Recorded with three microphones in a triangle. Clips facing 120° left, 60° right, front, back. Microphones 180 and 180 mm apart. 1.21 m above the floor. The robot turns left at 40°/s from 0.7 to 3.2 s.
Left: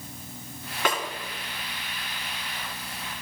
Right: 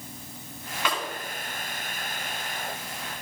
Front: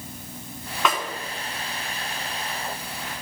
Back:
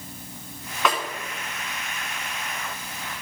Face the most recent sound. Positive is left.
turn(degrees=-5)